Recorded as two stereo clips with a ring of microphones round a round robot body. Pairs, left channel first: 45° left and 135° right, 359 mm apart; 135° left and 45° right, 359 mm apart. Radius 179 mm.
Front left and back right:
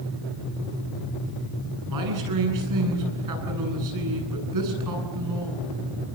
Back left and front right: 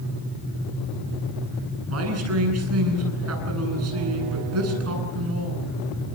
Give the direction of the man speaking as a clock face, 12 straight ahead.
3 o'clock.